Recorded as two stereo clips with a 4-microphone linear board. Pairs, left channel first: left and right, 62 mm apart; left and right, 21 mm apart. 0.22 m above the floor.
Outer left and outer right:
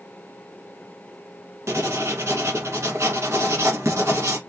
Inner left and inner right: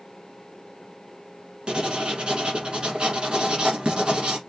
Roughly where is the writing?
Right.